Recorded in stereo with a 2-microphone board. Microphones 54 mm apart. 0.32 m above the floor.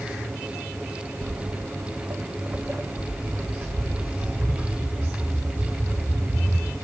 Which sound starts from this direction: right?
Footsteps, at 1.2 s.